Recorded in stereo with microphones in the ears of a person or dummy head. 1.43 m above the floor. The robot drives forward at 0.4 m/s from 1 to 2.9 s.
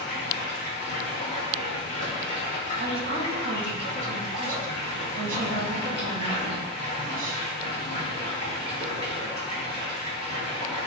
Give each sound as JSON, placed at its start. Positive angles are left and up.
{"t": 0.0, "sound": "running water", "side_deg": 65, "distance_m": 0.8}
{"t": 2.8, "sound": "a woman speaking", "side_deg": -45, "distance_m": 0.5}